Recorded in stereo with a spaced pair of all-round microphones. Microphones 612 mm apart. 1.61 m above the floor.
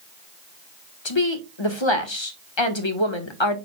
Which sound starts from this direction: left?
A woman speaking, at 1.1 s.